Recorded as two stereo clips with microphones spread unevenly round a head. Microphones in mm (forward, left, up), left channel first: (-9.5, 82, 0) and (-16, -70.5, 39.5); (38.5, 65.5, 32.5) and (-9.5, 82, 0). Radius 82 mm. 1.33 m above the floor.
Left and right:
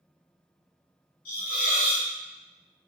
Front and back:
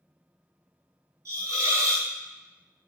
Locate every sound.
1.2 s a hiss: 110° left, 1.4 m